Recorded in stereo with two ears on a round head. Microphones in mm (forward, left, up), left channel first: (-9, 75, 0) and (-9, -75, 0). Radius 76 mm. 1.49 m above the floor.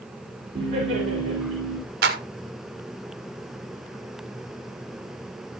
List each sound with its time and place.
0.6 s laughter: 40° right (ahead or behind), 5.5 m
2.0 s a clap: 65° right (ahead or behind), 1.7 m